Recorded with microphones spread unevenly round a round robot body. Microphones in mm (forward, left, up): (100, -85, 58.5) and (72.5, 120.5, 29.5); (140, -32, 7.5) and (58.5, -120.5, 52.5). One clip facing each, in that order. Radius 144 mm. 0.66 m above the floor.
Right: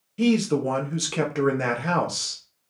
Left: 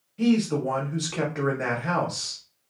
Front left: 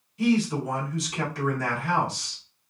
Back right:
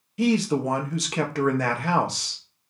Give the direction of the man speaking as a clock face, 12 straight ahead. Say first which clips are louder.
Right 1 dB, back right 1 dB; 4 o'clock.